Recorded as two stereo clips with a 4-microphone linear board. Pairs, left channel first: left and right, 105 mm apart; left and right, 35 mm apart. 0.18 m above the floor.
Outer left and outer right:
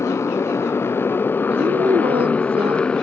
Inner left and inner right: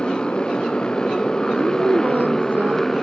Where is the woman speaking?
65° right (ahead or behind).